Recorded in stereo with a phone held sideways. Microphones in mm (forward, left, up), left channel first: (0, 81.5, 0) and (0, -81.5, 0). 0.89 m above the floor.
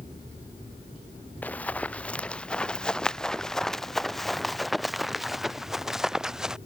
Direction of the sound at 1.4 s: 10° left (ahead or behind).